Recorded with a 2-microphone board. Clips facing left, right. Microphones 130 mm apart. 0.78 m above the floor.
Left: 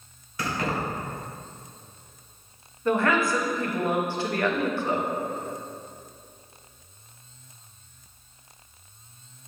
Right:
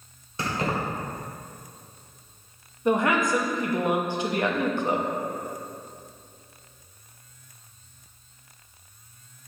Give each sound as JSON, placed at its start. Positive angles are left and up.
{"t": 0.4, "sound": "keys jangling", "side_deg": -30, "distance_m": 1.6}
{"t": 2.9, "sound": "a woman speaking", "side_deg": -20, "distance_m": 0.8}